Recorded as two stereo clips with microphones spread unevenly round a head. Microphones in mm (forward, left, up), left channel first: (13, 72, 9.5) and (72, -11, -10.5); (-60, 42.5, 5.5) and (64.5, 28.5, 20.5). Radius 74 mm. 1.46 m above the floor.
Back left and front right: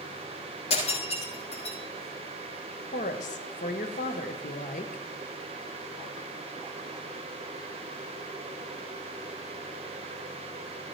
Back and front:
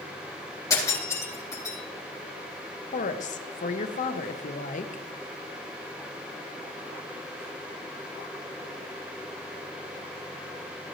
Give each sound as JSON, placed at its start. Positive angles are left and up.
{"t": 0.7, "sound": "breaking glass", "azimuth_deg": 110, "distance_m": 8.0}
{"t": 2.9, "sound": "a woman speaking", "azimuth_deg": 150, "distance_m": 1.2}